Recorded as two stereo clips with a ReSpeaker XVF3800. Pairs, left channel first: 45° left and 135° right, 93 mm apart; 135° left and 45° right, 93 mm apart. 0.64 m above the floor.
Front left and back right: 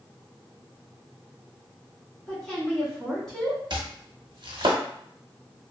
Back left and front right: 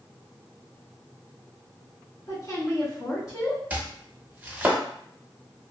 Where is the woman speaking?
125° left, 1.1 m.